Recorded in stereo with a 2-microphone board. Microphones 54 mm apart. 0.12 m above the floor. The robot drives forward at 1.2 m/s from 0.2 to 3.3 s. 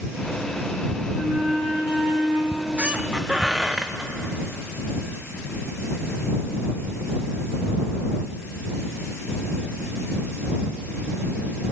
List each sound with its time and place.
1.1 s a flute: 35° right (ahead or behind), 5.5 m; by 2.4 s 25° right (ahead or behind), 7 m
2.5 s a squeak: 35° right (ahead or behind), 0.5 m; by 4.1 s 10° right (ahead or behind), 1.4 m